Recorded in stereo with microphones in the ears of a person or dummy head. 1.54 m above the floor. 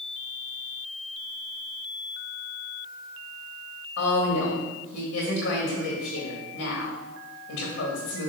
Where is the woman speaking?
70° left (ahead or behind), 2 m.